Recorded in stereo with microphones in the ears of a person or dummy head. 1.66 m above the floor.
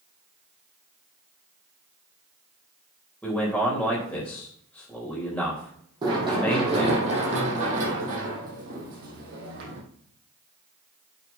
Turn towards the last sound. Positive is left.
turn(degrees=-60)  # may be behind; listen again after turning